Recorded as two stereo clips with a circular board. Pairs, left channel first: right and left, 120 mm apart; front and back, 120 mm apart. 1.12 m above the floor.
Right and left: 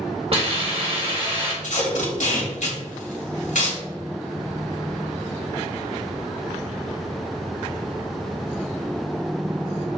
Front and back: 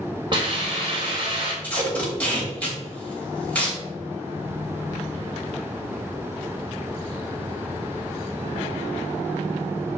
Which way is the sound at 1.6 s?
80° right.